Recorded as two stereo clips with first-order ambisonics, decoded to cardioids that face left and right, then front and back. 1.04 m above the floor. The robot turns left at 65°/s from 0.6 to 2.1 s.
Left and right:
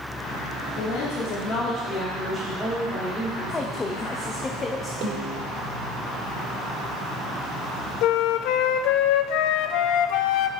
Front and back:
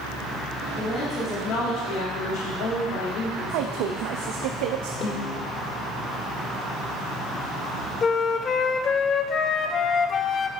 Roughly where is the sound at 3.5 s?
Behind.